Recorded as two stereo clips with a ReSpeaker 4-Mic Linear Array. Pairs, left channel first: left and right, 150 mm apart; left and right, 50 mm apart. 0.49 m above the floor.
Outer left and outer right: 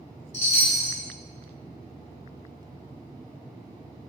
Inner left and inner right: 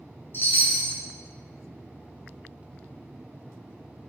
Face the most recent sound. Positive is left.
turn(degrees=45)  # may be behind; listen again after turning